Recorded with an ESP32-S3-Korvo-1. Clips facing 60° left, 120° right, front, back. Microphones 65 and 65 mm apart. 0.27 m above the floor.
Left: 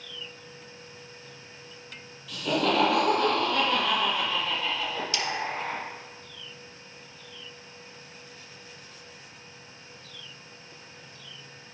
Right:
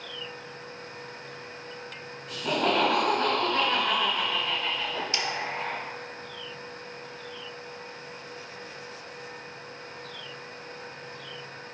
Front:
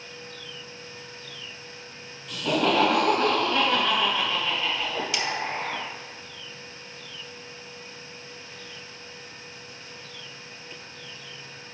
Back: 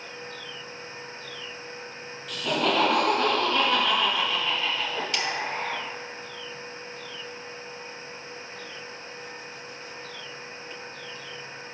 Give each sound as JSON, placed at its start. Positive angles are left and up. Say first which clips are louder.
{"t": 2.3, "sound": "laughter", "louder": "even, front 2 dB", "azimuth_deg": -85, "distance_m": 2.0}
{"t": 4.8, "sound": "a whoosh", "louder": "even, front 1 dB", "azimuth_deg": -85, "distance_m": 0.7}